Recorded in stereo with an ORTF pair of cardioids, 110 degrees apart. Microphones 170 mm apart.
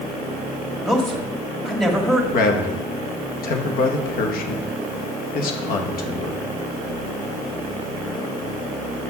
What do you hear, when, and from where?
0.8 s a man speaking: straight ahead, 1.9 m
2.3 s a man speaking: 65° left, 1.3 m